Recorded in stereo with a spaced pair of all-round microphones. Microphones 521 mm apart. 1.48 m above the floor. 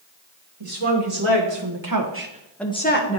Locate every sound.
0.6 s a woman speaking: 75° right (ahead or behind), 2 m; by 3.2 s 30° left (ahead or behind), 1.3 m